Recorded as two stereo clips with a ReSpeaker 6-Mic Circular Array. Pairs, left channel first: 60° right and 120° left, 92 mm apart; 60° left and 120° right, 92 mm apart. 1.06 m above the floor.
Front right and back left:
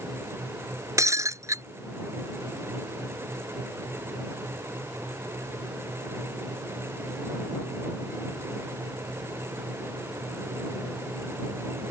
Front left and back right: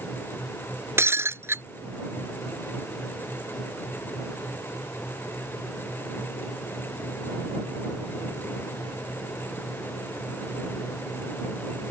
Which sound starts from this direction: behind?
Breaking glass, at 1.0 s.